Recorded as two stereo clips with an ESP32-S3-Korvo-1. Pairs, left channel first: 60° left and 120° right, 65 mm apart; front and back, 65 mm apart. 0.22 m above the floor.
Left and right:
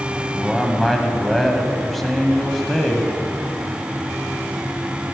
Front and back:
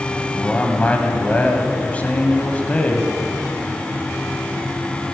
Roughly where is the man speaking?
Ahead.